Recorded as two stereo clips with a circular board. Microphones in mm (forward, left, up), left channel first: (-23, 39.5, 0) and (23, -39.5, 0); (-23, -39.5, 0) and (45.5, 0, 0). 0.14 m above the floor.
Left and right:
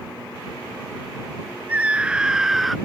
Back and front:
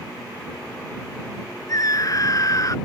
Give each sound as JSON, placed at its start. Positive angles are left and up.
{"t": 1.7, "sound": "a scream", "azimuth_deg": -130}